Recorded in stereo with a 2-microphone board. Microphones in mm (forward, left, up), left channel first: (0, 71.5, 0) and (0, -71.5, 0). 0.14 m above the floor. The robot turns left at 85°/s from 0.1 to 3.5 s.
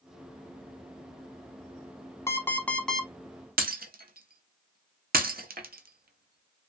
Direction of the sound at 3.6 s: 80° right.